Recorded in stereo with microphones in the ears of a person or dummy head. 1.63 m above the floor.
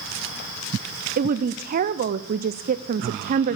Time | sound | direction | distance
1.2 | a woman speaking | 50° right (ahead or behind) | 0.7 m